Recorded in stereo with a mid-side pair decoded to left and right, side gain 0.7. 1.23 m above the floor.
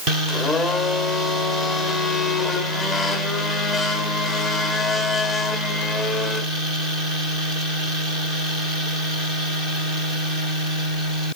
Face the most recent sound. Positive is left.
turn(degrees=10)